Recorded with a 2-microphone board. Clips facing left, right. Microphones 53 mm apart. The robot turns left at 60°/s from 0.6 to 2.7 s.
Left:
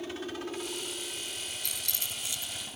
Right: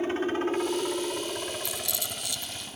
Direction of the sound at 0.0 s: 40° right (ahead or behind).